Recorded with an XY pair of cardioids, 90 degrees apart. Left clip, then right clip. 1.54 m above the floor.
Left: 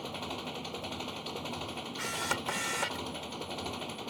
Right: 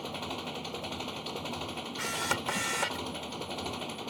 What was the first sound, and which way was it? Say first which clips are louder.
An engine running: right 1 dB; 10° right.